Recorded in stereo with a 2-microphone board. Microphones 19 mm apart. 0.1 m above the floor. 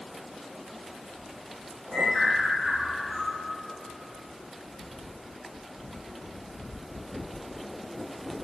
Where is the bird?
30° right (ahead or behind), 1.9 m.